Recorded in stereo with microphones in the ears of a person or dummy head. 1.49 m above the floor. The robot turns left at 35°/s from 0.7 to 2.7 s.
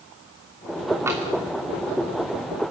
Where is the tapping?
15° right (ahead or behind), 2.5 m; by 1.2 s 5° right (ahead or behind), 2.5 m.